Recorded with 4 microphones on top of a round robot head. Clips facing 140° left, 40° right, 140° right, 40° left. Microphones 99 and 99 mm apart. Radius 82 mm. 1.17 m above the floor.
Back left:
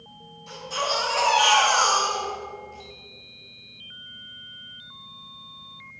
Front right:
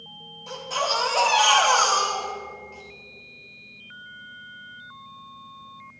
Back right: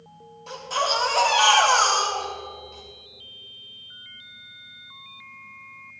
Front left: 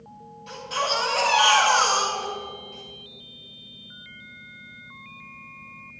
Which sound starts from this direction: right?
A baby crying, at 0.5 s.